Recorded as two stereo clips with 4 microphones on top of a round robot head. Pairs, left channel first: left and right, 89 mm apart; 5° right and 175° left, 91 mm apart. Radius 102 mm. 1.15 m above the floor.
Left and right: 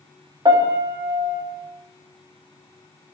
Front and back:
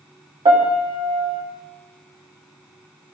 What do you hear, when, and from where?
0.5 s a piano: 135° right, 2.5 m